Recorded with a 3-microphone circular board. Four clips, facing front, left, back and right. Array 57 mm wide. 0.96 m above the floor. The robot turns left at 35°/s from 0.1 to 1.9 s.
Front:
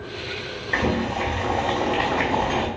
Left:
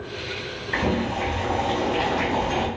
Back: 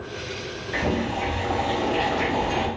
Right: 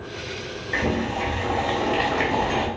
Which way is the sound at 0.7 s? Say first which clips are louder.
Even, front 2 dB; 5° right.